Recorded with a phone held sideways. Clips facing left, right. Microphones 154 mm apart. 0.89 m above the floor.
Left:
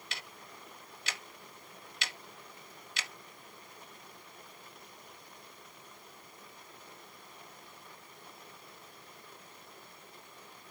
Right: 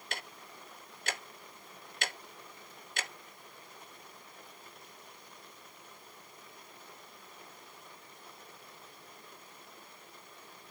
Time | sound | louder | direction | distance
0.1 | ticking | right 5 dB | 50° right (ahead or behind) | 0.8 m